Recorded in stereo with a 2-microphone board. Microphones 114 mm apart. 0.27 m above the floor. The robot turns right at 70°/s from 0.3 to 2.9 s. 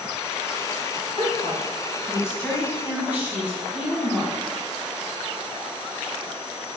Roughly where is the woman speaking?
Left.